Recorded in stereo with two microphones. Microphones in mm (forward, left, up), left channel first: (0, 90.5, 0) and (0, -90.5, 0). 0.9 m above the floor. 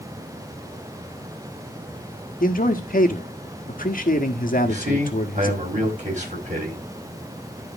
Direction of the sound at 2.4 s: 50° left (ahead or behind).